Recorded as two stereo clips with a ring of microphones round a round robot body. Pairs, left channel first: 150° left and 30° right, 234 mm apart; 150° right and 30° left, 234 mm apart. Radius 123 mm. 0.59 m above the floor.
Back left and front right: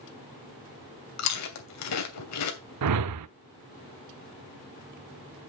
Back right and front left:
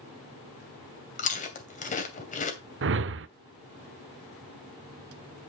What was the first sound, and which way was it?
Chewing, 150° left.